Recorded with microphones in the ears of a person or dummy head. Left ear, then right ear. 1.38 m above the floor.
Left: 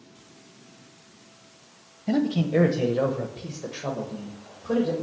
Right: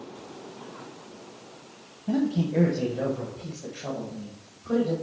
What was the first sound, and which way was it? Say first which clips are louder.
A man speaking: left 3 dB; 40° left (ahead or behind).